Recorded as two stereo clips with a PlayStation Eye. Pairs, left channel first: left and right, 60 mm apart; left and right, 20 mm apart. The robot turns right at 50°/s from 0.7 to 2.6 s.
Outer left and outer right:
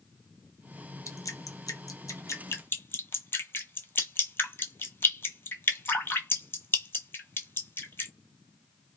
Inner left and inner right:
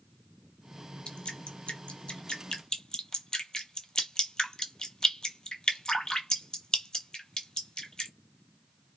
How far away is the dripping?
About 0.6 m.